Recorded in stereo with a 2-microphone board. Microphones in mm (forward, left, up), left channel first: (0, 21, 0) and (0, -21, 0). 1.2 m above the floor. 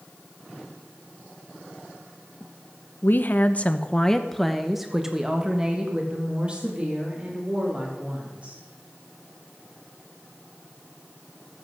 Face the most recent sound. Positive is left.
turn(degrees=-35)  # may be behind; listen again after turning